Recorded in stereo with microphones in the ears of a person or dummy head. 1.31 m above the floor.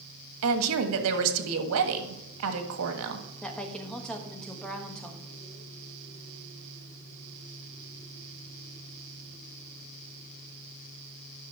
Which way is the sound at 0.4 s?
80° right.